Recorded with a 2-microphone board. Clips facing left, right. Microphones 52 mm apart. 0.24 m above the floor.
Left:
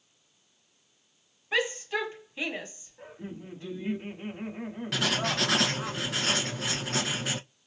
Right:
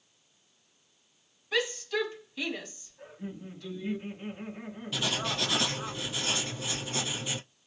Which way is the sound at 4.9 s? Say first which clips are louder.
Left 3 dB; 75° left (ahead or behind).